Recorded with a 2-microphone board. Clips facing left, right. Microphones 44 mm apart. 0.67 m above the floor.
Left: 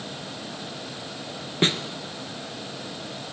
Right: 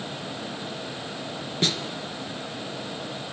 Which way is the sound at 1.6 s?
35° left (ahead or behind).